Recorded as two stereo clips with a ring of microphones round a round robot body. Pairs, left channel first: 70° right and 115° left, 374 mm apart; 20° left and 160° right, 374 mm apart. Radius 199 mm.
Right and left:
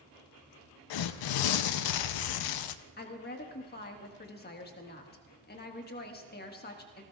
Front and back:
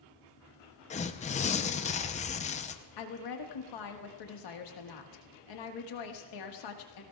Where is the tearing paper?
50° right, 0.6 m.